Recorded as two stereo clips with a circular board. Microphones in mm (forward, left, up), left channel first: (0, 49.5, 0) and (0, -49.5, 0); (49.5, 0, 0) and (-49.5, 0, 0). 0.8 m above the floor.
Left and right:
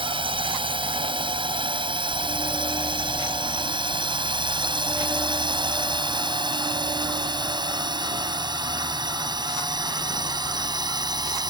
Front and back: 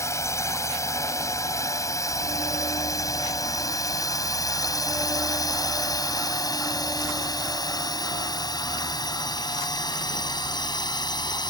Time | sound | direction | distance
0.0 | a drone | 60° right | ?